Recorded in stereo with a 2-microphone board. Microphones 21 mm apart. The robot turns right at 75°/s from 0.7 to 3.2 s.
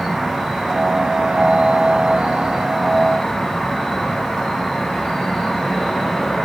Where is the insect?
170° right, 2 m; by 6.5 s 20° left, 2 m.